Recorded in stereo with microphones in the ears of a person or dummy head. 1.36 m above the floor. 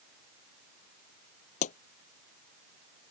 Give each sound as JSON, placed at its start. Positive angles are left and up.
{"t": 1.6, "sound": "a pop", "side_deg": 45}